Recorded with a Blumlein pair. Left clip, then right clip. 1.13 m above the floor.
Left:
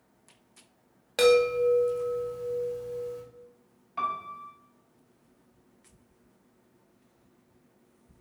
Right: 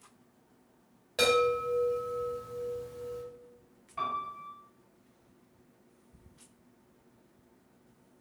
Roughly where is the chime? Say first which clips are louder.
Left 5 dB; ahead left.